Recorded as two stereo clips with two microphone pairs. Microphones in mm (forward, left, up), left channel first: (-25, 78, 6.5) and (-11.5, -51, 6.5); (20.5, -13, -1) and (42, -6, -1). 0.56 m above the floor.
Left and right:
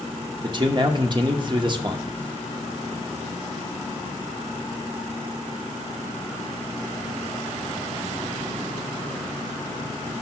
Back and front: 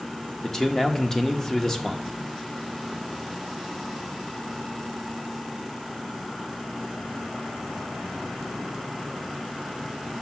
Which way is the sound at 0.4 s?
110° right.